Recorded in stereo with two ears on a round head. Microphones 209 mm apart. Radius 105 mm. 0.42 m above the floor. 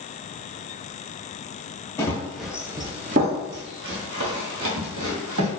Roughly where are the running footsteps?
Centre.